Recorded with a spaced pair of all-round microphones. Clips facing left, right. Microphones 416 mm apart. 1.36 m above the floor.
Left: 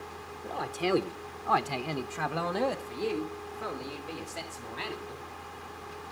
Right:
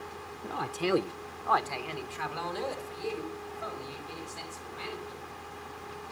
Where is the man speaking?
30° right (ahead or behind), 0.8 m; by 5.2 s 85° left, 3.5 m.